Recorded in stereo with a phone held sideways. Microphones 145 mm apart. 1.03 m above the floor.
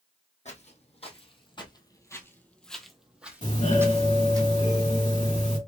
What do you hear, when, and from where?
0.5 s footsteps: 50° left (ahead or behind), 1.6 m; by 4.4 s 25° right (ahead or behind), 1.8 m
3.4 s a doorbell: 55° left (ahead or behind), 2.5 m